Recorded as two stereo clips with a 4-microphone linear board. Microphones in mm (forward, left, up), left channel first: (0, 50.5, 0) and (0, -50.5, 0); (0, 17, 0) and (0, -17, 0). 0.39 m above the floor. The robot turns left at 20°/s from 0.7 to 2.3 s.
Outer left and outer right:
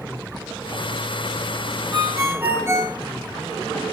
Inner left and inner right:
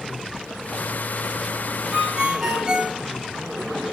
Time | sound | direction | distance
1.9 | a ringtone | 30° right (ahead or behind) | 4.5 m